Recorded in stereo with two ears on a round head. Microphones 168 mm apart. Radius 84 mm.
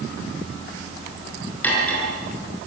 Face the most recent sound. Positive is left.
turn(degrees=10)  # may be behind; listen again after turning